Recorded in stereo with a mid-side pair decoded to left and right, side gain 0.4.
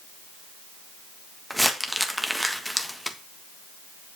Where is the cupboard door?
No cupboard door in this recording.